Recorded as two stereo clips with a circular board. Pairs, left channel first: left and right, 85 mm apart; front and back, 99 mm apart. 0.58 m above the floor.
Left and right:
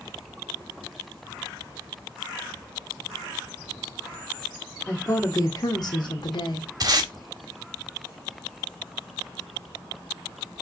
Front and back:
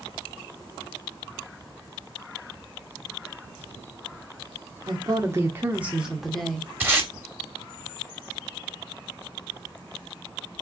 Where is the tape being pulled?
115° right, 1.9 m.